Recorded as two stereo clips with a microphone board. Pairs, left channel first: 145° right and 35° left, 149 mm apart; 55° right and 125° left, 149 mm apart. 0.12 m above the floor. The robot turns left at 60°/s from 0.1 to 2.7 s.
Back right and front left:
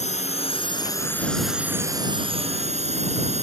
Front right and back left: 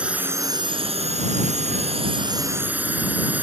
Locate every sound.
0.0 s a drone: 155° right; by 3.4 s 50° left